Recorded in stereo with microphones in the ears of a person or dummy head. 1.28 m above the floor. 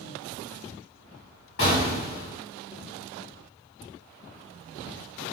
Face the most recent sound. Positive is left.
turn(degrees=50)  # may be behind; listen again after turning